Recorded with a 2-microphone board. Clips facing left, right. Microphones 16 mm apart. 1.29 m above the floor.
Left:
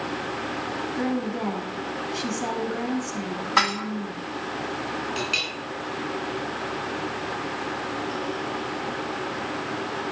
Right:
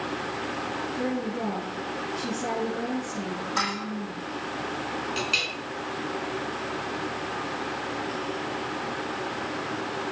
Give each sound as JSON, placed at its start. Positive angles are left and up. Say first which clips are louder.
{"t": 1.0, "sound": "a woman speaking", "louder": "left 3 dB", "side_deg": 65, "distance_m": 7.0}
{"t": 3.6, "sound": "dishes clattering", "louder": "left 7 dB", "side_deg": 45, "distance_m": 1.6}
{"t": 5.2, "sound": "a clink", "louder": "even", "side_deg": 0, "distance_m": 8.0}